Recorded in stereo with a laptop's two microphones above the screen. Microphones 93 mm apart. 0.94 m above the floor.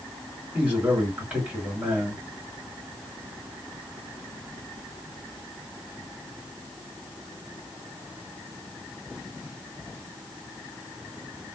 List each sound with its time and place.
0.5 s a man speaking: 15° right (ahead or behind), 2 m